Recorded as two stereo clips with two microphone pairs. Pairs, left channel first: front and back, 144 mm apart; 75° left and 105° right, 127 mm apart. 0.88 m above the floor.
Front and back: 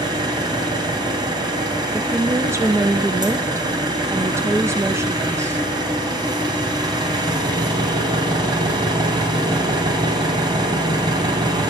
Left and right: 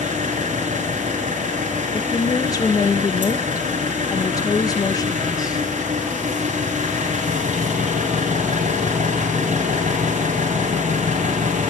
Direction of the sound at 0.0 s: 120° right.